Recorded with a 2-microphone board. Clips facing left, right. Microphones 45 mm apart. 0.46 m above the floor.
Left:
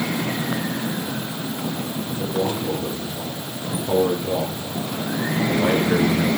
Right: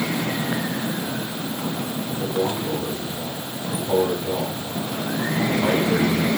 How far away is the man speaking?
About 10 m.